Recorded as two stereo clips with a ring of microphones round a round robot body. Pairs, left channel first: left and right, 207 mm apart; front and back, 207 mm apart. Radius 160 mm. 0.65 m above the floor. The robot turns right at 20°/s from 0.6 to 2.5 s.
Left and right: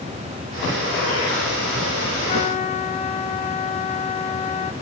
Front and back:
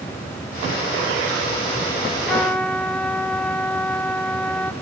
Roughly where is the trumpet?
Left.